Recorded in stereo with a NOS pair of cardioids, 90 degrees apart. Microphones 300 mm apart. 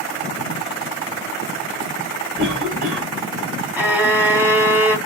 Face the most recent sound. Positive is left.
turn(degrees=-5)